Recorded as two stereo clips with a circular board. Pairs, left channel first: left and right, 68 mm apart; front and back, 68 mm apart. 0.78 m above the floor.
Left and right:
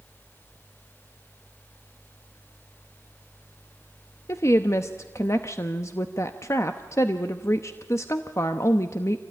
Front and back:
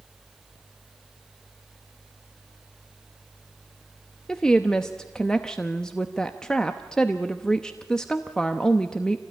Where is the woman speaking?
75° left, 0.9 m.